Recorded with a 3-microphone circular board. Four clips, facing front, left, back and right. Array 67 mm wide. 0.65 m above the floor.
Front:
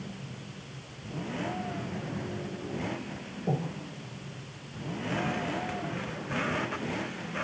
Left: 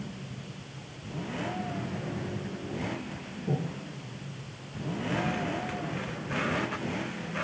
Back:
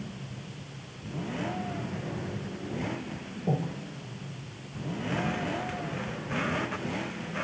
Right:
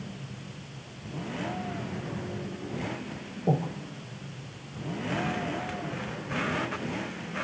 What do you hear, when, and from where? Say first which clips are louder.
3.5 s breathing: right 5 dB, back 1 dB; 95° right, 1.3 m